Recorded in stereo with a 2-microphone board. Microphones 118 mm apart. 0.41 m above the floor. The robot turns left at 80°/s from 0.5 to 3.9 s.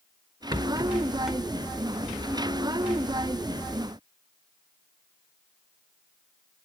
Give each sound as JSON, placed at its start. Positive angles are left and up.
{"t": 0.5, "sound": "a rattle", "side_deg": -35, "distance_m": 0.9}